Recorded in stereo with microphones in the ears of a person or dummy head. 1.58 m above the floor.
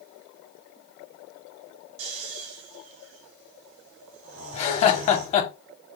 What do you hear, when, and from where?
2.0 s snoring: 75° right (ahead or behind), 1.7 m
4.5 s laughter: 35° left (ahead or behind), 1.0 m